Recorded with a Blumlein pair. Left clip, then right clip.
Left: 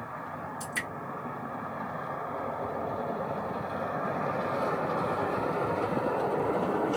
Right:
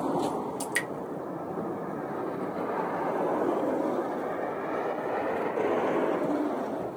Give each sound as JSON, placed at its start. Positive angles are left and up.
{"t": 0.6, "sound": "dripping", "azimuth_deg": -45, "distance_m": 1.9}